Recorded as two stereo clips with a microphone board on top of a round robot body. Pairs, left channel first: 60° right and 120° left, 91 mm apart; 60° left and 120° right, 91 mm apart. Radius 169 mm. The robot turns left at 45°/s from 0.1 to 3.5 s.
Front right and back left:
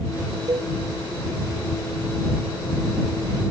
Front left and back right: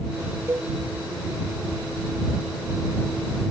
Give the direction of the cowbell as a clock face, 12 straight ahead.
6 o'clock.